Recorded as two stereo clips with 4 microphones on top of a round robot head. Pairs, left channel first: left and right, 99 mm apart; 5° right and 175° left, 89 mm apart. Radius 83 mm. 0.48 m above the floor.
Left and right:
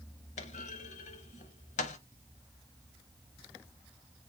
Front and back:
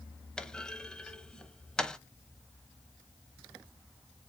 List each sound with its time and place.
0.4 s a clunk: 75° left, 0.6 m